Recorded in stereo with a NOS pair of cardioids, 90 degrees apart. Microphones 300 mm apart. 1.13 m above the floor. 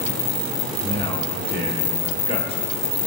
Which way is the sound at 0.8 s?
20° left.